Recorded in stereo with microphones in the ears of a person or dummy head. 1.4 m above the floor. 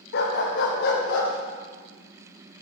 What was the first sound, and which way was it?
A dog barking, 60° left (ahead or behind).